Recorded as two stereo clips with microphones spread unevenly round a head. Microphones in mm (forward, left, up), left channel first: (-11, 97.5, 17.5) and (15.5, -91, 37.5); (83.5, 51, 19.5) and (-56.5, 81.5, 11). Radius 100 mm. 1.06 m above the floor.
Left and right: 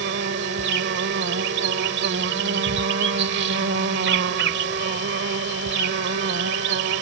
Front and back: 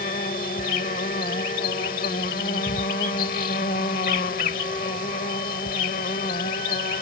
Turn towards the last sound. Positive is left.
turn(degrees=-55)